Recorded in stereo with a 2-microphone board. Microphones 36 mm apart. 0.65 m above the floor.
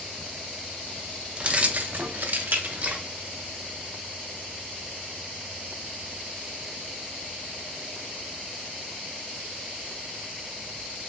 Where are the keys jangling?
30° right (ahead or behind), 0.7 m; by 3.0 s 45° right (ahead or behind), 0.9 m.